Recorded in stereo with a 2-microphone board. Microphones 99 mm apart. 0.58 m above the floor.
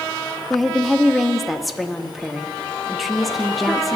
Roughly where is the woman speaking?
Centre.